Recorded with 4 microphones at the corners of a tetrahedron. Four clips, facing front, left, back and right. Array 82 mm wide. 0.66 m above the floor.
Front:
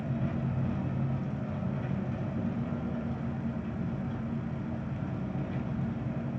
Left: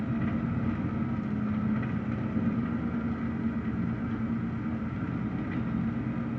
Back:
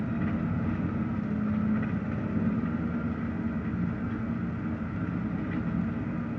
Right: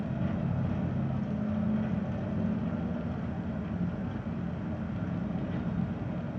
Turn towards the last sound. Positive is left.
turn(degrees=145)